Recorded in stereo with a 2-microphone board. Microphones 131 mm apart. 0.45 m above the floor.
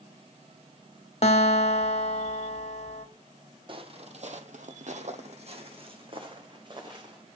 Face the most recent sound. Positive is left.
turn(degrees=-30)  # may be behind; listen again after turning